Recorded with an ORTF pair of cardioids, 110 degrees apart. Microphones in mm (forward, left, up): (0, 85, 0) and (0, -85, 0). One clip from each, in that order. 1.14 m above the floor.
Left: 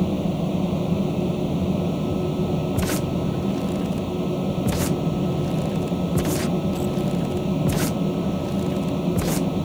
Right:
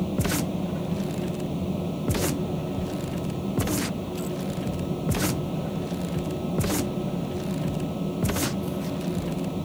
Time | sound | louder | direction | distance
0.0 | a fan | left 2 dB | 35° left | ?